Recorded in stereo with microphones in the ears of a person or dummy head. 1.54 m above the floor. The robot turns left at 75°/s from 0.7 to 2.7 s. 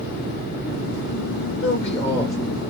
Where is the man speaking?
50° left, 1.5 m; by 2.4 s 5° right, 1.5 m.